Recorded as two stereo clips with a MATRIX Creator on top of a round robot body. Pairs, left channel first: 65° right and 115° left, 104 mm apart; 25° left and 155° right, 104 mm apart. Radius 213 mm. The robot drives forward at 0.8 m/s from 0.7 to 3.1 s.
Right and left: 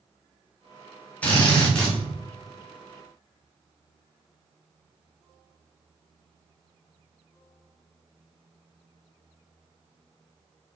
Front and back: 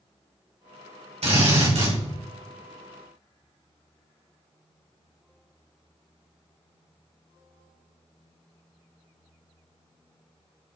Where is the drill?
145° right, 3 m; by 2.0 s 150° right, 3.5 m.